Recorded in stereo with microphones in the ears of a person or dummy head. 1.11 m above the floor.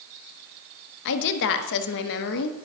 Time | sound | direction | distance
1.1 | a woman speaking | 60° left (ahead or behind) | 1.0 m